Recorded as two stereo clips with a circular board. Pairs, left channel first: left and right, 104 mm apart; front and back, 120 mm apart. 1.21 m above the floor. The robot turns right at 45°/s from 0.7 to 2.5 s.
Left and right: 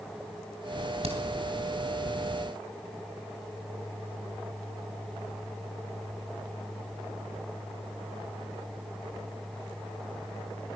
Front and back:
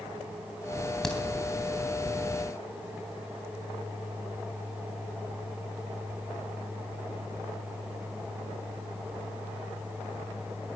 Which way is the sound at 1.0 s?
85° right.